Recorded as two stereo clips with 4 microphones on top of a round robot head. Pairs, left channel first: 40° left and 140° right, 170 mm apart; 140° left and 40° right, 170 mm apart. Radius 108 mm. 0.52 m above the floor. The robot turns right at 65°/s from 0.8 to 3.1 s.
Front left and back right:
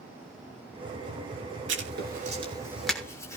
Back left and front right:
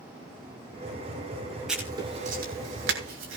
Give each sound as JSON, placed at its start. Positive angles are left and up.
{"t": 1.7, "sound": "writing", "azimuth_deg": -125, "distance_m": 6.5}